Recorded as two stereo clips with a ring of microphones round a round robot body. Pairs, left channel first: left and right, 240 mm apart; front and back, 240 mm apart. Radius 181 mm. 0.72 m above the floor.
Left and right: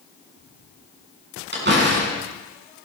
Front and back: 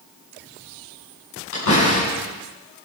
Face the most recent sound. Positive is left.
turn(degrees=-45)